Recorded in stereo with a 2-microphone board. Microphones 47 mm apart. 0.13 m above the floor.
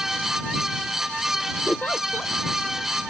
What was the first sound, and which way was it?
A giggle, 40° left (ahead or behind).